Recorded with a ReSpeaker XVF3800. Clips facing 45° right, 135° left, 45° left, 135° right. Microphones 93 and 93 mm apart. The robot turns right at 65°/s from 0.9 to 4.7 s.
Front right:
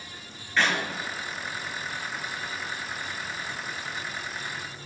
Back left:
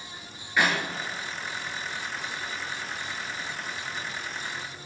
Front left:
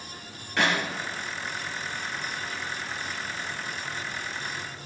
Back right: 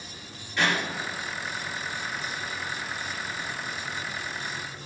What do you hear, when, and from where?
0.6 s a clap: 55° left, 4.5 m